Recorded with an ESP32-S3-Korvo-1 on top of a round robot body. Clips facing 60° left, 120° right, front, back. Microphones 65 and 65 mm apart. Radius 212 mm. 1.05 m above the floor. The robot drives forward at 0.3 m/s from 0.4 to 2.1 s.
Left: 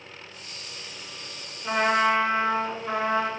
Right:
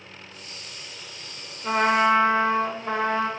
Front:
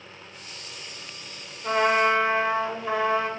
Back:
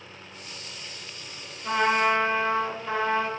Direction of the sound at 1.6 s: 75° right.